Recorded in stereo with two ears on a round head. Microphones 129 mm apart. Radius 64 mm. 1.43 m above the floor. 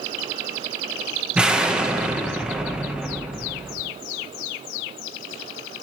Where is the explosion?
5° right (ahead or behind), 1.7 m.